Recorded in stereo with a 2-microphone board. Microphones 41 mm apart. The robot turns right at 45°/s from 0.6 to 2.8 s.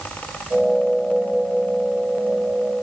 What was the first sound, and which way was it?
Only background noise.